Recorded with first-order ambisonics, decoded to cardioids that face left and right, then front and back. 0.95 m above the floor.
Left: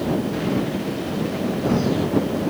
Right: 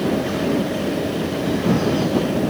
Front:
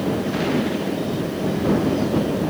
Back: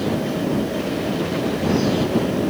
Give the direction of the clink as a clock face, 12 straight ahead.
I don't hear a clink.